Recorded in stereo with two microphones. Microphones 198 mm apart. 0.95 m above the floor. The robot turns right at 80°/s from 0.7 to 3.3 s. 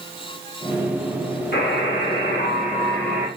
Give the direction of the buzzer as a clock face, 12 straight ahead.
10 o'clock.